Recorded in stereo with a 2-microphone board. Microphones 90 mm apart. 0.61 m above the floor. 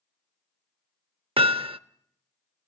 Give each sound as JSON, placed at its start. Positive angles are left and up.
{"t": 1.4, "sound": "hammering", "side_deg": -80, "distance_m": 0.7}